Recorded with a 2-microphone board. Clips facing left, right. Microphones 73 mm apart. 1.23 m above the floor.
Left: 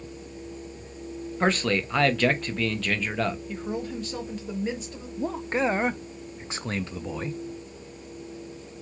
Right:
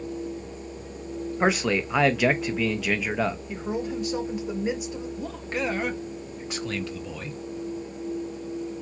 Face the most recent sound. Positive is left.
turn(degrees=30)  # may be behind; listen again after turning